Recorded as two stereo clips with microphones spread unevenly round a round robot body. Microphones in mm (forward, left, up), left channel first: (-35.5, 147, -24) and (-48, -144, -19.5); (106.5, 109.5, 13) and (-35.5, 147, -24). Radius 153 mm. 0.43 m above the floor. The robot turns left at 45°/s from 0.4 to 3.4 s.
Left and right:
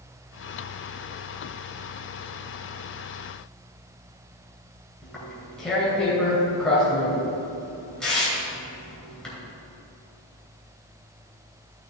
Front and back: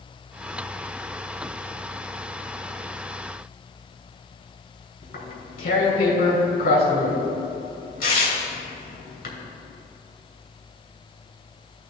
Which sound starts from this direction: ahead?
Tearing paper, at 5.0 s.